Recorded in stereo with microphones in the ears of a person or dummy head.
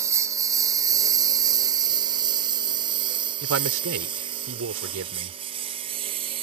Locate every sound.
0.0 s a lawn mower: 15° right (ahead or behind); by 6.4 s 35° right (ahead or behind)
3.4 s a man speaking: 75° right (ahead or behind)